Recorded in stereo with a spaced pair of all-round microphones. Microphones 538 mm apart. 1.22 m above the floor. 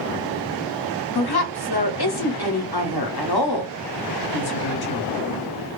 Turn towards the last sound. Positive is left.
turn(degrees=45)  # may be behind; listen again after turning